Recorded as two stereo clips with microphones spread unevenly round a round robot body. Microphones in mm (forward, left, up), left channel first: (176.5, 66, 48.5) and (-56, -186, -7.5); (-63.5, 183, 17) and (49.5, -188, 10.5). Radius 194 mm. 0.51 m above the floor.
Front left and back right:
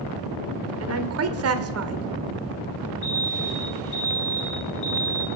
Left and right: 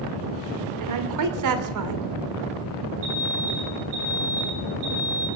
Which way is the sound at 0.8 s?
105° right.